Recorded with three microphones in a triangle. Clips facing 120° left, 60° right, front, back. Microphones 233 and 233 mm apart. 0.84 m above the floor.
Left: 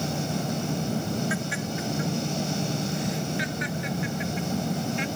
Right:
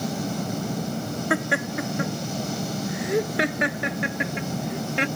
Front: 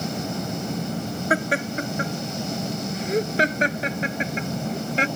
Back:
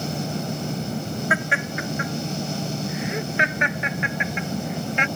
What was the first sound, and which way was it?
Laughter, 50° right.